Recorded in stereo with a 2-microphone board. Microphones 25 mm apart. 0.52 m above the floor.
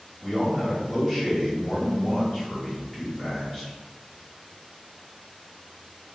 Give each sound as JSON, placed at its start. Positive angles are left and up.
{"t": 0.2, "sound": "a man speaking", "side_deg": 15, "distance_m": 1.1}